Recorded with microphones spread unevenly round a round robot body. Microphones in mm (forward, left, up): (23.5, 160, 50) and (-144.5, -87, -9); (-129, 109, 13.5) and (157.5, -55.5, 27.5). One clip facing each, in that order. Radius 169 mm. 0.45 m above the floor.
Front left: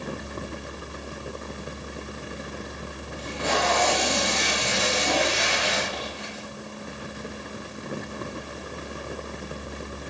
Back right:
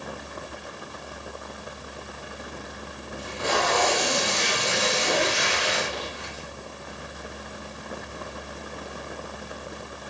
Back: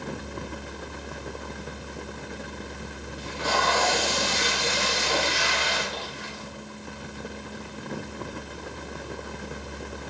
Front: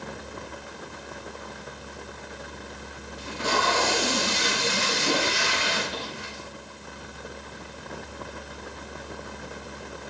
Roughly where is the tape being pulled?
Ahead right.